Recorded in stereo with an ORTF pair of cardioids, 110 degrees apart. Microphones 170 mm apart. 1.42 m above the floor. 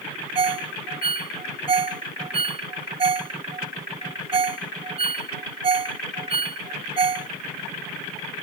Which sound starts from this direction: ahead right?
A ringtone, at 0.3 s.